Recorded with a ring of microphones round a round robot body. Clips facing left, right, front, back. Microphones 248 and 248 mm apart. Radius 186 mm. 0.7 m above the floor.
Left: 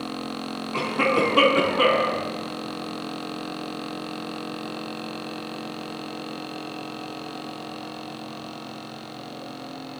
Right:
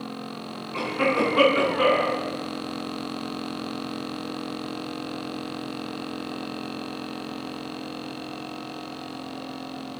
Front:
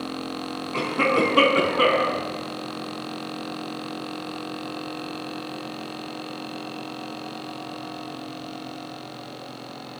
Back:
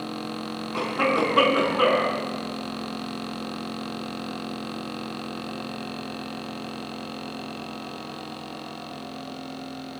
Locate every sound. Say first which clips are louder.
0.7 s a cough: left 1 dB, front 2 dB; 60° left, 7.5 m